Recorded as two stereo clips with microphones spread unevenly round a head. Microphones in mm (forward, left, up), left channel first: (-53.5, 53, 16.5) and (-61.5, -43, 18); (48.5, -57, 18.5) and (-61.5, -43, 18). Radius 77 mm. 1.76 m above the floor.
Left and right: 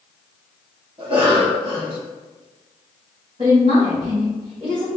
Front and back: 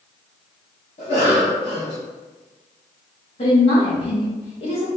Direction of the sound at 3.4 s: 35° right.